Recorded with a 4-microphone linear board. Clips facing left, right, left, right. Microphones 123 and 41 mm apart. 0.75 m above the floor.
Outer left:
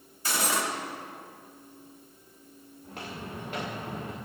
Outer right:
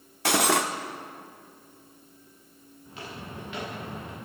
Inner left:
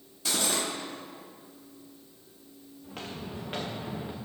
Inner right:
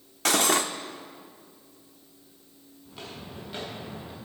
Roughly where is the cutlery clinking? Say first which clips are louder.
Outer right 6 dB, inner right 7 dB; right.